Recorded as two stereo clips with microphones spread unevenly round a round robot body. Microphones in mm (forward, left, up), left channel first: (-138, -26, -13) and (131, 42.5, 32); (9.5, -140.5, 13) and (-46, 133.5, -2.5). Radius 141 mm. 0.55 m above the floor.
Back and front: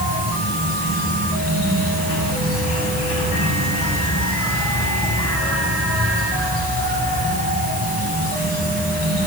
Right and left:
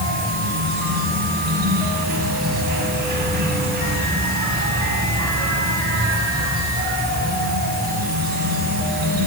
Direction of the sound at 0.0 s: 155° left.